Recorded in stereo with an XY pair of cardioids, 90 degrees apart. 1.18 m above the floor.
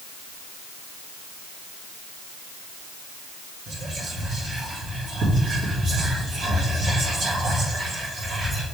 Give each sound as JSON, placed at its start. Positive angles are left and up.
{"t": 3.7, "sound": "whispering", "azimuth_deg": -65, "distance_m": 1.8}